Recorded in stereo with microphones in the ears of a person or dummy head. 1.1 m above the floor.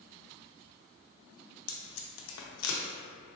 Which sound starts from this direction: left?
Tape being pulled, at 1.7 s.